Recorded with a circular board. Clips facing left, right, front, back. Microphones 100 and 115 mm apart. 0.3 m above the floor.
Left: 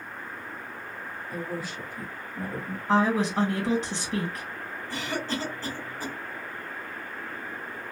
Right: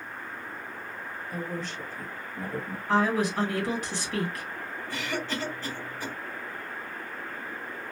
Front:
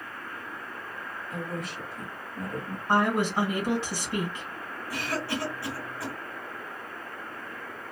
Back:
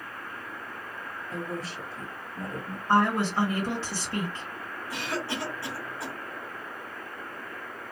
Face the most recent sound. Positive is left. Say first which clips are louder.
# left 1 dB, front 1 dB
turn(degrees=120)